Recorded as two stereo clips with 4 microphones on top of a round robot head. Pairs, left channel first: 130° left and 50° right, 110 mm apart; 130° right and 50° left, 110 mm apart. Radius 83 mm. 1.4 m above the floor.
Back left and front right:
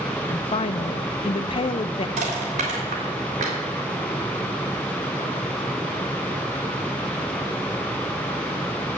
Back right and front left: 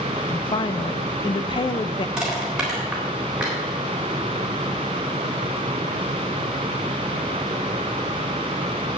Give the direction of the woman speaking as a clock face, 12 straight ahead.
6 o'clock.